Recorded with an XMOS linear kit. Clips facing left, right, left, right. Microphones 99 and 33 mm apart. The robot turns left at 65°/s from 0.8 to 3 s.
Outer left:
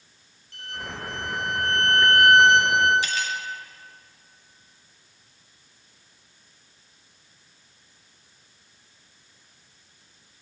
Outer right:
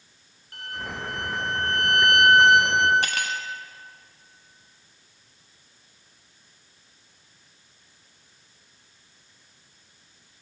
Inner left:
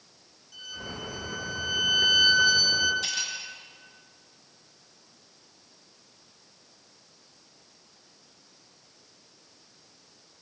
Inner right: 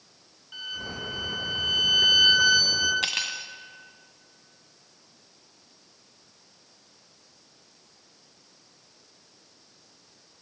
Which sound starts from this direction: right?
Cutlery clinking, at 3.0 s.